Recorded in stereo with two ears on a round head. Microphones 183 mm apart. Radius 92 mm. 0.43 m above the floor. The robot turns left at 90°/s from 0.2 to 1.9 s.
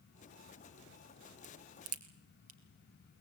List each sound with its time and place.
1.4 s a crack: 55° right (ahead or behind), 2 m; by 2.6 s 85° right, 2 m